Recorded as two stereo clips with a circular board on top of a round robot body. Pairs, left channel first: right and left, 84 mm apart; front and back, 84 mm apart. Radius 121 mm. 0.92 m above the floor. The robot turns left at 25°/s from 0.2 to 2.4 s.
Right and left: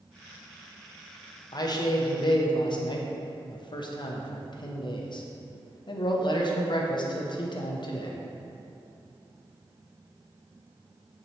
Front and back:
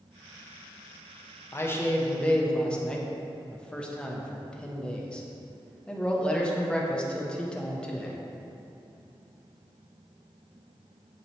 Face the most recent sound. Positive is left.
turn(degrees=-80)